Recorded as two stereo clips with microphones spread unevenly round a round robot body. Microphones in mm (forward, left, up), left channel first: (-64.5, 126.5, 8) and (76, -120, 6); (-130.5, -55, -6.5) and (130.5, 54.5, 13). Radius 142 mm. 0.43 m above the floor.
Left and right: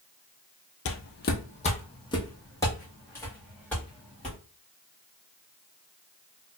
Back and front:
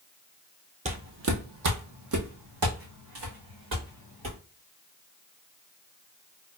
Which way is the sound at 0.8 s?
85° left.